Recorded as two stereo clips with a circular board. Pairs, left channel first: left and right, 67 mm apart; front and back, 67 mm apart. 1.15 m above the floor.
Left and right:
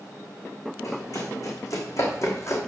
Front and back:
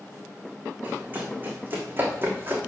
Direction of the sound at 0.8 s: 120° left.